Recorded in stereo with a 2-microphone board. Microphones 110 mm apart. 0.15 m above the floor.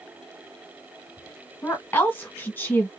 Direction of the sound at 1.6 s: 20° left (ahead or behind).